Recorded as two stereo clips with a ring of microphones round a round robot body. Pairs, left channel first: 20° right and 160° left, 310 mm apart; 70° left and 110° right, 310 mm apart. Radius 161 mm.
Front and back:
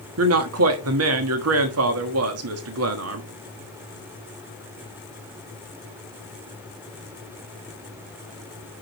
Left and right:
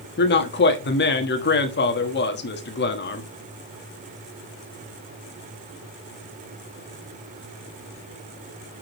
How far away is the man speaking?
About 1.3 m.